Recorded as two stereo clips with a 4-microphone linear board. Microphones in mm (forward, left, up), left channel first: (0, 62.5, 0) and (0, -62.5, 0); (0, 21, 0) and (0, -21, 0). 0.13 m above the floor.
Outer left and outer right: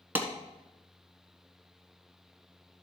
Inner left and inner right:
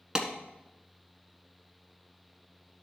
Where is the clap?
15° right (ahead or behind), 1.2 m.